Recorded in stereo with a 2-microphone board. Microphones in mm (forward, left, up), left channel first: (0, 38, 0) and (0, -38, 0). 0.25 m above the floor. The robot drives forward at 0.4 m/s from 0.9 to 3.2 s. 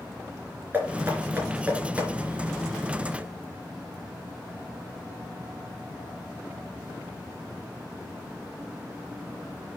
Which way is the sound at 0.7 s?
25° right (ahead or behind).